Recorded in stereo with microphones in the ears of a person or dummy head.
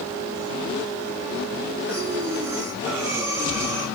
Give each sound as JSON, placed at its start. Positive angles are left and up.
{"t": 1.9, "sound": "breathing", "side_deg": -15, "distance_m": 4.5}